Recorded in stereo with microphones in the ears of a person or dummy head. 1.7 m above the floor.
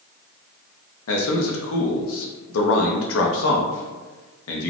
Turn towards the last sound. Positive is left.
turn(degrees=75)  # may be behind; listen again after turning